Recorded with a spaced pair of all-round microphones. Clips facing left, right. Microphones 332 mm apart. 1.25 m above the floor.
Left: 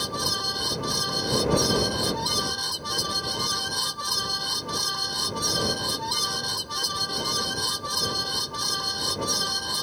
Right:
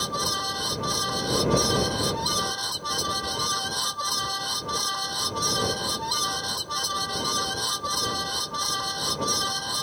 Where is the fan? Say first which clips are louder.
Even; 35° left (ahead or behind).